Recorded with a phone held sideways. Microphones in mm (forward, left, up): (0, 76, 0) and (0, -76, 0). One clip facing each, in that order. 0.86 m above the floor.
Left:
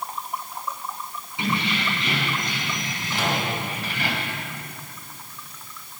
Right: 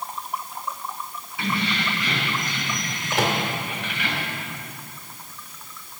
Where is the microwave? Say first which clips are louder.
Right 3 dB; 60° right (ahead or behind), 2 m.